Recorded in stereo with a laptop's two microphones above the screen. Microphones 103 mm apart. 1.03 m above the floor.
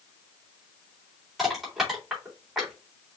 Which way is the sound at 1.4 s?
5° right (ahead or behind).